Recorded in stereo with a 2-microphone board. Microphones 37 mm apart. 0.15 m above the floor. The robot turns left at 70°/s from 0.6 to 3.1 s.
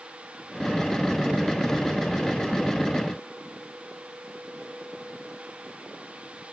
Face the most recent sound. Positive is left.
No sound to turn to.